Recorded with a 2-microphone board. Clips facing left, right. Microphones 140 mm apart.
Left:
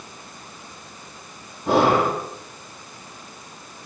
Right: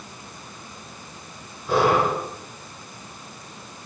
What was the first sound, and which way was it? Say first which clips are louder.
Breathing: left 2 dB; 80° left.